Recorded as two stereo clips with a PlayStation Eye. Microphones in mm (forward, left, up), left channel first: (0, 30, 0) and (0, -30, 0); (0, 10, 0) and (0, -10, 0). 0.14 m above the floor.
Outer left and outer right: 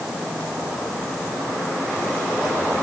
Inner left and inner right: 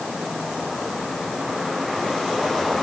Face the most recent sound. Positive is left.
No sound to turn to.